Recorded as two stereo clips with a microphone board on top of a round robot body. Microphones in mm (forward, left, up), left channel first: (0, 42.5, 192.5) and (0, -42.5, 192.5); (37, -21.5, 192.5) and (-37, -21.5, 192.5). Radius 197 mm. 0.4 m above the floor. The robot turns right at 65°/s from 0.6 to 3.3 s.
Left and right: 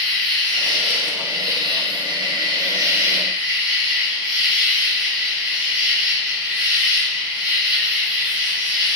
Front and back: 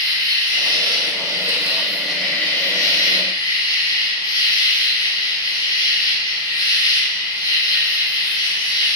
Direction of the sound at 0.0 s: 170° left.